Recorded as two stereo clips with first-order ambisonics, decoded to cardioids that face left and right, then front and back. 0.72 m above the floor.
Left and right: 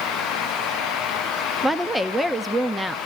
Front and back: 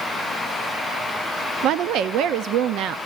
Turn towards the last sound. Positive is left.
turn(degrees=-175)